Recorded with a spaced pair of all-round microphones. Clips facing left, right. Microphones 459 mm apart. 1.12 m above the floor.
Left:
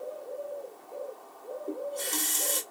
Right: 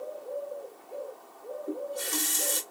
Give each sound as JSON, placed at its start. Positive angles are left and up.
{"t": 1.7, "sound": "a running tap", "side_deg": -25, "distance_m": 1.2}